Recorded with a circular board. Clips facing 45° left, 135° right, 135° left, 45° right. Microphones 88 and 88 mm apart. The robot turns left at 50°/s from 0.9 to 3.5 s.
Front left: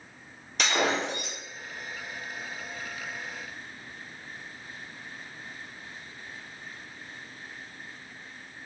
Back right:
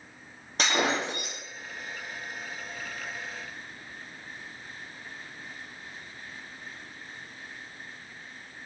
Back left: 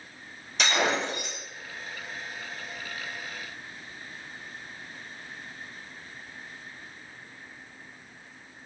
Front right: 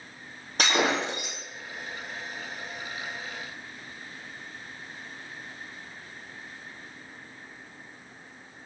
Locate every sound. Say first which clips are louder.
0.6 s breaking glass: even, front right 1 dB; 85° right, 2 m; by 1.4 s 110° right, 2 m